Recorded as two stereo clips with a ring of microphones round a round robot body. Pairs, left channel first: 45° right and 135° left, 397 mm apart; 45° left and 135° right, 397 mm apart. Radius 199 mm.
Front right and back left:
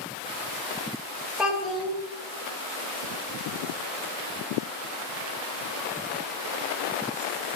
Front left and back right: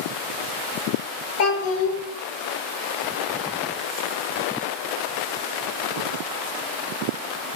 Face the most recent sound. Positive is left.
turn(degrees=45)